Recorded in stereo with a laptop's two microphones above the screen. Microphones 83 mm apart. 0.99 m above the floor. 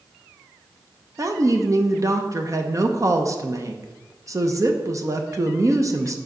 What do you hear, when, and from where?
1.2 s a woman speaking: 45° right (ahead or behind), 0.7 m